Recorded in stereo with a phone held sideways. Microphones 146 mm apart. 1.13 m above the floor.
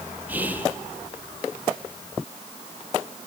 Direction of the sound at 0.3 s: 10° right (ahead or behind).